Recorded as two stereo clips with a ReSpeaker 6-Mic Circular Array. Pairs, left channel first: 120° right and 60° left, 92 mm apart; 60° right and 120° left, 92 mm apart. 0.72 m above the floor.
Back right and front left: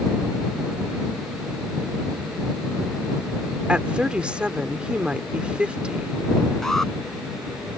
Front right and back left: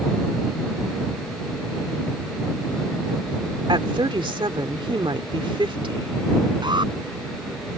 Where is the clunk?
I don't hear a clunk.